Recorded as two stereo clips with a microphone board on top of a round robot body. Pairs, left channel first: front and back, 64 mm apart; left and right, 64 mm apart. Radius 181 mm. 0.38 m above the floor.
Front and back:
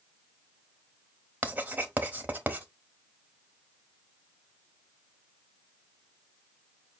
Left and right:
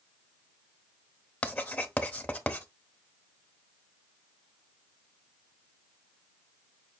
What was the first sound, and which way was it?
Writing, 140° left.